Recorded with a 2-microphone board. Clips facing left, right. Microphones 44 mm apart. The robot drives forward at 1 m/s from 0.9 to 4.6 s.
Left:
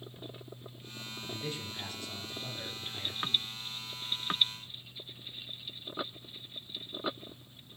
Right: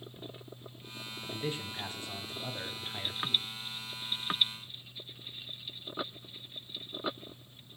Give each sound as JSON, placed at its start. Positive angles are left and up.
{"t": 1.3, "sound": "a man speaking", "side_deg": -20, "distance_m": 5.0}